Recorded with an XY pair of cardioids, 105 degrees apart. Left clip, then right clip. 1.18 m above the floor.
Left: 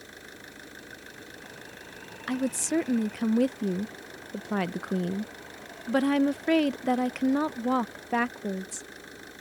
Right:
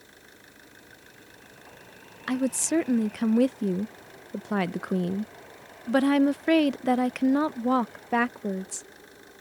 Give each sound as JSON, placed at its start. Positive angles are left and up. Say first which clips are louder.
{"t": 0.0, "sound": "an engine running", "louder": "left 6 dB", "azimuth_deg": 40}
{"t": 2.3, "sound": "a woman speaking", "louder": "right 2 dB", "azimuth_deg": -15}